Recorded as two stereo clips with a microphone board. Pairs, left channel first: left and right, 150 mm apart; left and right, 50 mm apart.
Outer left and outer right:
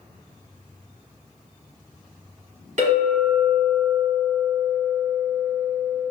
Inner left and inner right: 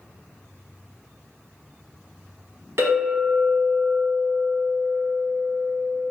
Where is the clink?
55° right (ahead or behind), 1.2 m.